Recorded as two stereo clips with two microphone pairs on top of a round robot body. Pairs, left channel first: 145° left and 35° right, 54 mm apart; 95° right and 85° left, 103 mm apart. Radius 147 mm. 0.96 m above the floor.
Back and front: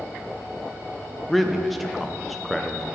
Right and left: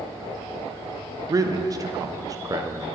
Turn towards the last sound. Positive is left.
turn(degrees=65)